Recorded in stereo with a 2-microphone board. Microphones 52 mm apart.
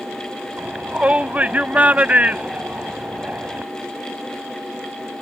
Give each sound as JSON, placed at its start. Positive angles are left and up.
{"t": 0.6, "sound": "a shout", "side_deg": -30}